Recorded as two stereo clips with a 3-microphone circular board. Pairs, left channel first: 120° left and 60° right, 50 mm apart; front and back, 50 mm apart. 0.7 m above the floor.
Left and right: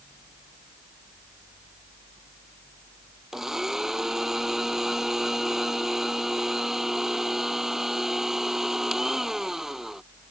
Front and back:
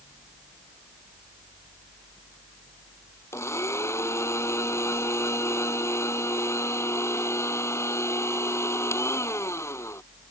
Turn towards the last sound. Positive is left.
turn(degrees=20)